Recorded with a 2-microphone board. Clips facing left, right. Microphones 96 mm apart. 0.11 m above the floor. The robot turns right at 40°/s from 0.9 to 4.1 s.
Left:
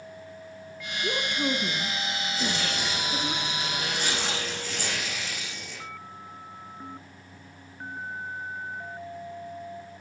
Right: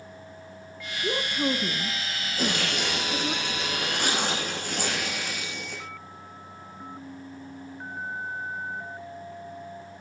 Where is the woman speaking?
10° right (ahead or behind), 1.1 m; by 3.4 s 15° right (ahead or behind), 1.1 m.